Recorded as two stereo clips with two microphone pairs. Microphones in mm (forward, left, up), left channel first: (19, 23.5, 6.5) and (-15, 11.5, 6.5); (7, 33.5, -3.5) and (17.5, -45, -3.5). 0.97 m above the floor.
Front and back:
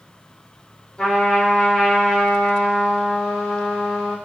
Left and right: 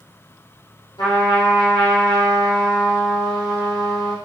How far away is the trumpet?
About 1.4 m.